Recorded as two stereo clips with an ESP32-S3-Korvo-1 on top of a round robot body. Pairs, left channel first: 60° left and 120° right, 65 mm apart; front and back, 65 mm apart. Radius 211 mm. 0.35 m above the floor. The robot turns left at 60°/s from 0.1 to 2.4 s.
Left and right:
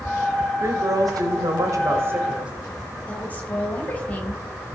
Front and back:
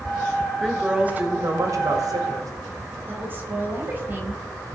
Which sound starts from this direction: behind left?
A woman speaking, at 3.1 s.